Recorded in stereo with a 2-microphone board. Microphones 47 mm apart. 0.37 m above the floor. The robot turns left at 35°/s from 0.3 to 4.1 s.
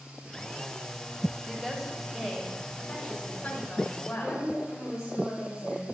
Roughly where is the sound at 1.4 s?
Behind.